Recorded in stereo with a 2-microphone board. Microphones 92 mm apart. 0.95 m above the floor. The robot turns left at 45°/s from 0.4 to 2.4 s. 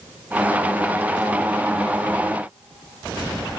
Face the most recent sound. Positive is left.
No sound to turn to.